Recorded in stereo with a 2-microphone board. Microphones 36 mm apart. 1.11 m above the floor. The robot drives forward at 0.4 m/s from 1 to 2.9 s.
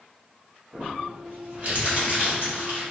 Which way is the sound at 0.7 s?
50° right (ahead or behind).